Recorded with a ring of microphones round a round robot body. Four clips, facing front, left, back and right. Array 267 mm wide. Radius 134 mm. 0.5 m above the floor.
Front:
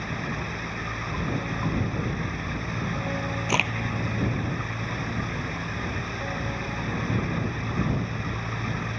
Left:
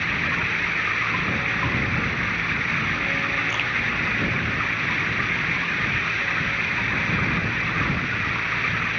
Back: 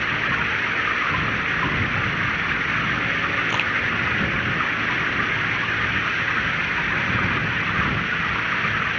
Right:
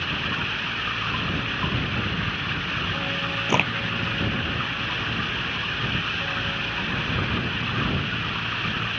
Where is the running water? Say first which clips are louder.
Left 3 dB, back 7 dB; 170° left.